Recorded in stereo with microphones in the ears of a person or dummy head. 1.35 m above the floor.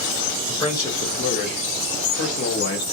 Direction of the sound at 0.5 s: 10° left (ahead or behind).